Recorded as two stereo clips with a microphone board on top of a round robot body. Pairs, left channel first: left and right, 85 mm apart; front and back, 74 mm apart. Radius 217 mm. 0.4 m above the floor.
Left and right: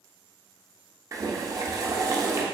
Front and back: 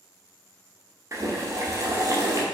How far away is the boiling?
About 1.0 m.